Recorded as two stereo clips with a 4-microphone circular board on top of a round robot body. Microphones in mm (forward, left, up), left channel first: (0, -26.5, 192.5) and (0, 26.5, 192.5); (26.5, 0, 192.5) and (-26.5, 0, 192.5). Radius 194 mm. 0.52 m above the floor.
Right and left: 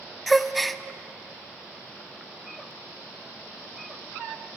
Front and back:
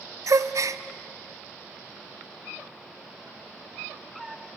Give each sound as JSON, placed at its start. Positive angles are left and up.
{"t": 0.3, "sound": "a gasp", "azimuth_deg": 180, "distance_m": 0.8}